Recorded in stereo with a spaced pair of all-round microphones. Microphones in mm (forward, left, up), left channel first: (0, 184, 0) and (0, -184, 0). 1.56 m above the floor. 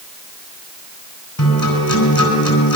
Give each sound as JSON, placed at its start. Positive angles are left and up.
{"t": 1.4, "sound": "a guitar", "side_deg": 70, "distance_m": 4.5}